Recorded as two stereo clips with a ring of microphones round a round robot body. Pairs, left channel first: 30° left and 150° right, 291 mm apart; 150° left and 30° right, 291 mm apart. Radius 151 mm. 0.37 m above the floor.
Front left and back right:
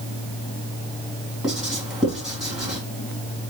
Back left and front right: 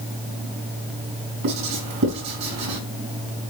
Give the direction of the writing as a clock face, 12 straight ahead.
2 o'clock.